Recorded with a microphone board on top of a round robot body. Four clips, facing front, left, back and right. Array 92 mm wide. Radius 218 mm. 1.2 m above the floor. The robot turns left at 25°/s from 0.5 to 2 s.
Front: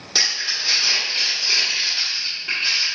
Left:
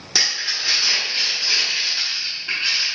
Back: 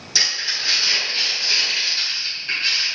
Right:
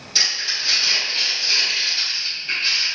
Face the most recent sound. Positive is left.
turn(degrees=30)